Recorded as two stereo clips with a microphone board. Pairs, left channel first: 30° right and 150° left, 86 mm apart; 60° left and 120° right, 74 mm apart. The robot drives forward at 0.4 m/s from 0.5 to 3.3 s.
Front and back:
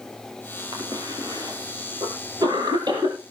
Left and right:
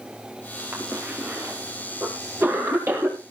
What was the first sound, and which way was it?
A cough, 175° right.